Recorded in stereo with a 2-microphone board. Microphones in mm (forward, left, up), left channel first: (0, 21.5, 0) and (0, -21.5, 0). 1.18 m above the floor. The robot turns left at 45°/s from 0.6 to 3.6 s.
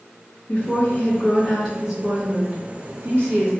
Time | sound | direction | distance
0.5 | a woman speaking | 55° left | 1.3 m